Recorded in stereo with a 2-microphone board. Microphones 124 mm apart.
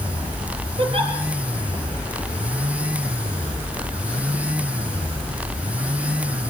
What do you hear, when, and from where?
0.8 s a giggle: 50° right (ahead or behind), 4.5 m